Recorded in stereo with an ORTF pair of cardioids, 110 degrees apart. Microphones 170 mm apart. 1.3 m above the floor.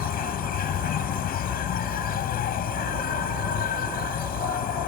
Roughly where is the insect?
Ahead left.